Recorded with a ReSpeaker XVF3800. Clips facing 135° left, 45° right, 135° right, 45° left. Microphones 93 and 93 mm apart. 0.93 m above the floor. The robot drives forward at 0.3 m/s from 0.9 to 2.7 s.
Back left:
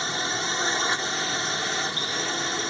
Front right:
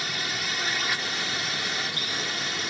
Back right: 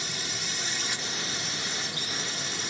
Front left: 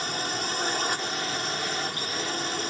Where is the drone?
80° left.